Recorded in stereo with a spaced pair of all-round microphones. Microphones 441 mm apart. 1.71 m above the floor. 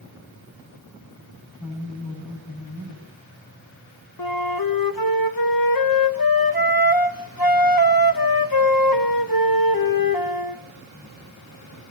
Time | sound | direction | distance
1.6 | a woman speaking | 40° left (ahead or behind) | 8.5 m
4.2 | a flute | 50° left (ahead or behind) | 1.1 m